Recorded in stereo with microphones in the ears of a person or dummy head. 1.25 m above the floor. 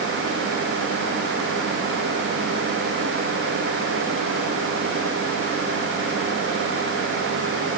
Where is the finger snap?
I don't hear a finger snap.